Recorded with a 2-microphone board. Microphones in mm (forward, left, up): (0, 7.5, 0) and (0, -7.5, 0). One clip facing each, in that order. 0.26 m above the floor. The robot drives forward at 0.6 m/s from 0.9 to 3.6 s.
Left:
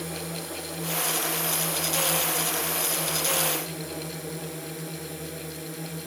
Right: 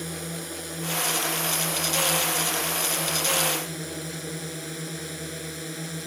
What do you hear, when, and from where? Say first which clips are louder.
0.0 s a drone: even; 20° right (ahead or behind); by 6.1 s 35° right (ahead or behind)